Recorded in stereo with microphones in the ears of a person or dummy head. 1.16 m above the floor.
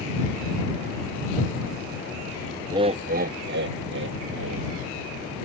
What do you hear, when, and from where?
2.7 s laughter: 15° right (ahead or behind); by 4.7 s 60° right (ahead or behind)